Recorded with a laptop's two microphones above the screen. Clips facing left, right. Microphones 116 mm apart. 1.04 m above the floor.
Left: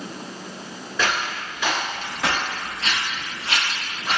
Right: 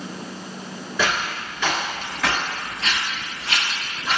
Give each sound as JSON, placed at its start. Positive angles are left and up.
{"t": 1.0, "sound": "footsteps", "side_deg": -5, "distance_m": 1.2}